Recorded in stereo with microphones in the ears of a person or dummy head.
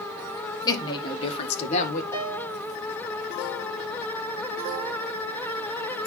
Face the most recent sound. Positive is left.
turn(degrees=20)  # may be behind; listen again after turning